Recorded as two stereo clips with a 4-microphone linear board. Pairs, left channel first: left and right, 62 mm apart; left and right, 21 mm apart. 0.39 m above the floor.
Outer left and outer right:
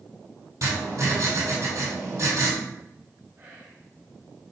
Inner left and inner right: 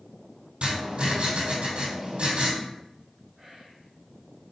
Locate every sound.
0.6 s writing: 55° right (ahead or behind), 2.5 m
3.4 s whispering: 45° right (ahead or behind), 2.0 m